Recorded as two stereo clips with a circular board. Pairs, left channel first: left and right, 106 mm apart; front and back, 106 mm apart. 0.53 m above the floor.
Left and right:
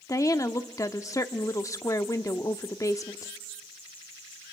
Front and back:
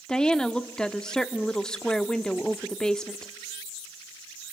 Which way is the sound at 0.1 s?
75° left.